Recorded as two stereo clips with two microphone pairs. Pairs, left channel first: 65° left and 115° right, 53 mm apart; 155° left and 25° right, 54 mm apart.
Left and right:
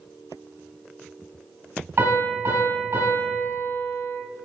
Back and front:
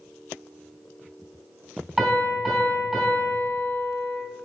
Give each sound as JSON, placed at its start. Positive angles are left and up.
{"t": 2.0, "sound": "a piano", "azimuth_deg": -110, "distance_m": 2.5}